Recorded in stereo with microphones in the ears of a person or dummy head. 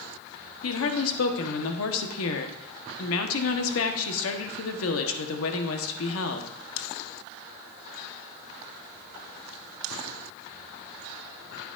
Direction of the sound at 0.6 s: 75° left (ahead or behind).